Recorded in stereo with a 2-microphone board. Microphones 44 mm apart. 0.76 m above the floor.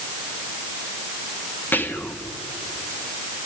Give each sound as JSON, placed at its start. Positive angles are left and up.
{"t": 1.7, "sound": "whispering", "side_deg": 45, "distance_m": 1.5}